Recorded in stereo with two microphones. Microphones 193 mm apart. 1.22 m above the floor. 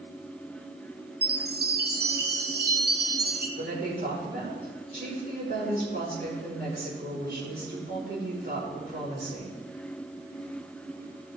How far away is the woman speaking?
About 5 m.